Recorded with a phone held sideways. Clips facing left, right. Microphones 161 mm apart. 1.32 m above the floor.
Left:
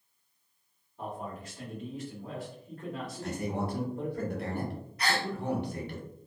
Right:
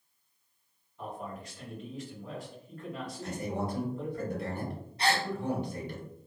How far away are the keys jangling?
I don't hear keys jangling.